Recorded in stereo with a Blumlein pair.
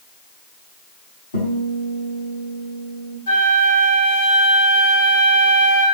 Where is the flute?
60° left, 2.5 m.